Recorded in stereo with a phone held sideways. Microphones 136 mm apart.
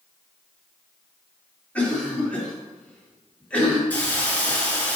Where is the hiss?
10° left (ahead or behind), 2.5 m.